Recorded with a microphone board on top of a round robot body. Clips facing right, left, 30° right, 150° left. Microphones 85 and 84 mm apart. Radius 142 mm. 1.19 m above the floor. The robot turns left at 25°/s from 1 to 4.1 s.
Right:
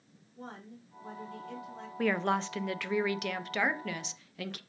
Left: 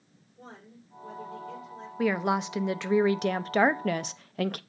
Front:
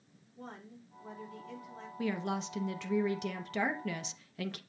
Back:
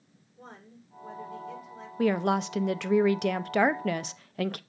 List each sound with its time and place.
0.4 s a woman speaking: 55° right, 4 m; by 1.9 s 75° right, 4 m
2.0 s a woman speaking: 175° left, 0.6 m; by 4.6 s 120° left, 0.6 m